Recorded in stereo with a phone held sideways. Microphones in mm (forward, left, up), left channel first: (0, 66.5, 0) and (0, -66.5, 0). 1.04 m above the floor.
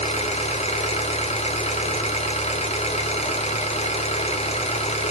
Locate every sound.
0.0 s an engine running: 55° left (ahead or behind), 1.6 m